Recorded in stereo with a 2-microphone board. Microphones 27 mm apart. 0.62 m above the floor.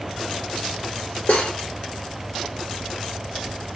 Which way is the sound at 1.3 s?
60° left (ahead or behind).